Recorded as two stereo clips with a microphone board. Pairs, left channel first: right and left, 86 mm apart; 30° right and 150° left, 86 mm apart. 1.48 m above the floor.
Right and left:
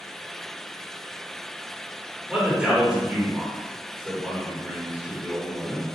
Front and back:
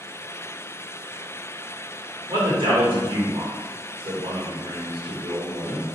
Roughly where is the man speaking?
Behind.